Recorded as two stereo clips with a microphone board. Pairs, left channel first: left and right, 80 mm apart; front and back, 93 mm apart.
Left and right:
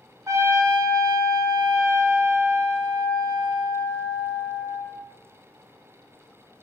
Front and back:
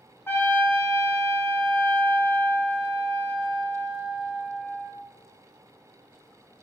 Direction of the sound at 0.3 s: 55° right.